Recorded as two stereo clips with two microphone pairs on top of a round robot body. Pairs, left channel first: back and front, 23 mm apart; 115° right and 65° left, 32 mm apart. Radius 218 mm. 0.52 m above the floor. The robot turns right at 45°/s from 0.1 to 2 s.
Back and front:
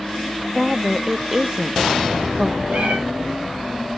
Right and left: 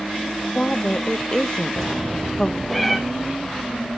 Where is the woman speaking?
110° right, 0.7 m; by 2.6 s 45° right, 0.7 m.